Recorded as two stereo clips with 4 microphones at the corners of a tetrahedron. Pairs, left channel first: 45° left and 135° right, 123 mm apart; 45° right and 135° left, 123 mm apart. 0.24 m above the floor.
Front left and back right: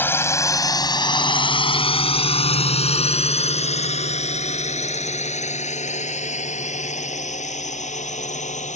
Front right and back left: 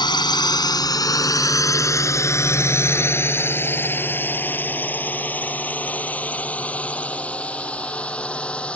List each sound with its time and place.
0.0 s a drone: 20° right; by 8.8 s 35° left